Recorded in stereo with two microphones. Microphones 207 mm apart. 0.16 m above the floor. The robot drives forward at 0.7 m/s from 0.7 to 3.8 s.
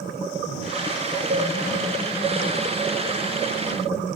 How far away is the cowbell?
About 2.5 m.